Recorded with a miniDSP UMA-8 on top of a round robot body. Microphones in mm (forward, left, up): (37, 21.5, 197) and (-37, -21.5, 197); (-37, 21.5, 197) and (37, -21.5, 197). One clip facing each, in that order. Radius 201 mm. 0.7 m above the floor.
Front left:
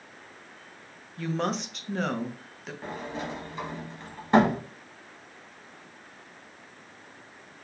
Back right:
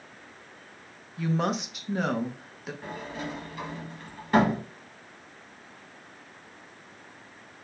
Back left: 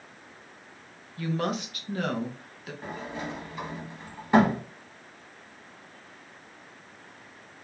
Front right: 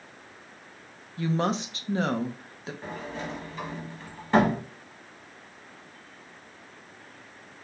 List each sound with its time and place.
1.2 s a woman speaking: 70° right, 0.6 m
2.8 s a sliding door: 80° left, 1.2 m